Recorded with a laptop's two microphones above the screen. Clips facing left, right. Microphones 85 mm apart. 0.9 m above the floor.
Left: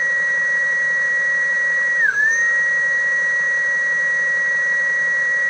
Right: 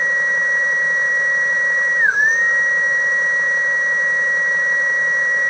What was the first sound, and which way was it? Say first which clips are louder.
A machine running: right 1 dB; 15° right (ahead or behind).